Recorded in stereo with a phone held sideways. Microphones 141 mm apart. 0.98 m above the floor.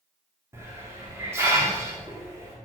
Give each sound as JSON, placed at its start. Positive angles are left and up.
{"t": 0.5, "sound": "a hiss", "side_deg": -20, "distance_m": 2.0}